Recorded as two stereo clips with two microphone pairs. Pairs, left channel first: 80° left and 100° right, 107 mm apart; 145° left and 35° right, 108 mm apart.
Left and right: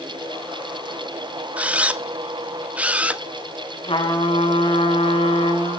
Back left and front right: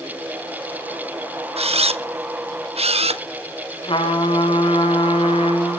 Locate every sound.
1.6 s a camera shutter: 25° right, 0.9 m
3.8 s a trumpet: 110° left, 4.5 m